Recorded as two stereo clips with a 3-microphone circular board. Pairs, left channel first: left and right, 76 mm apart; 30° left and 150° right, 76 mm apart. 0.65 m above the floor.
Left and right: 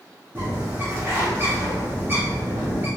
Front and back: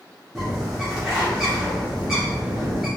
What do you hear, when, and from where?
0.3 s a bird: 70° right, 1.3 m